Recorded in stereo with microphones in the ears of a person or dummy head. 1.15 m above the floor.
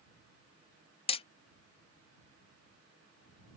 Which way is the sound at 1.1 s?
30° left (ahead or behind).